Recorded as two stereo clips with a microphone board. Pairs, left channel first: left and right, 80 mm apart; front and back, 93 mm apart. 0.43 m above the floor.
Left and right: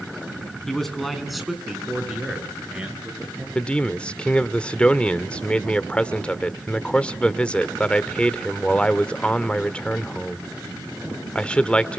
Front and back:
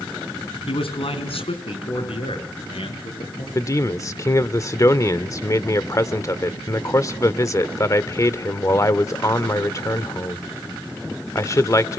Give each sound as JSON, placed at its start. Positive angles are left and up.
{"t": 0.7, "sound": "a man speaking", "azimuth_deg": 5, "distance_m": 4.0}
{"t": 3.5, "sound": "a man speaking", "azimuth_deg": 25, "distance_m": 1.2}